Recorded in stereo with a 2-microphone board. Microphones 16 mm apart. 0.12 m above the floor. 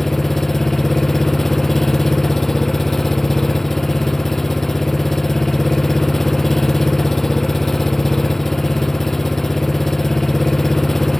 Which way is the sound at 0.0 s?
25° left (ahead or behind).